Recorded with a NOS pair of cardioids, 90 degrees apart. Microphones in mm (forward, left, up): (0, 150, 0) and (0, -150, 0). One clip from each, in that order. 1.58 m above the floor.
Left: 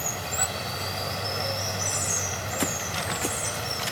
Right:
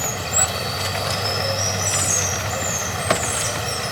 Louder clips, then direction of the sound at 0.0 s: Right 6 dB; 40° right.